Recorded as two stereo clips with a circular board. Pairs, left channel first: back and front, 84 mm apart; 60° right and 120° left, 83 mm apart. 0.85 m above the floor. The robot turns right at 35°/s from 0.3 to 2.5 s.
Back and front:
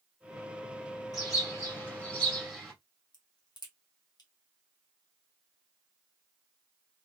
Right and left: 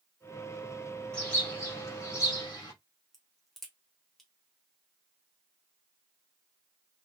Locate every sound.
1.1 s a bird: 140° right, 1.8 m; by 2.7 s 95° right, 1.8 m
3.1 s a crack: 145° right, 1.3 m